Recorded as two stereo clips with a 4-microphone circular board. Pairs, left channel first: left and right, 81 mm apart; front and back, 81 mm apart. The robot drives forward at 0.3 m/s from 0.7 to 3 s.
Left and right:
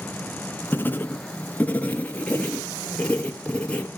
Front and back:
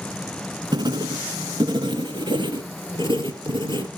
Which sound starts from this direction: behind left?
Writing, at 0.7 s.